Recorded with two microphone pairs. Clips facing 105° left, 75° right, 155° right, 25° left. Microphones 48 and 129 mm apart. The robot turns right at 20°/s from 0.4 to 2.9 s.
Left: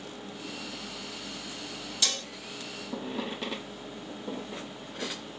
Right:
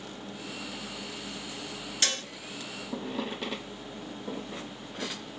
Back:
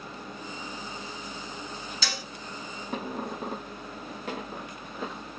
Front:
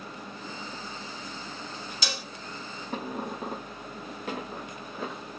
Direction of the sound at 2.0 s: 45° right.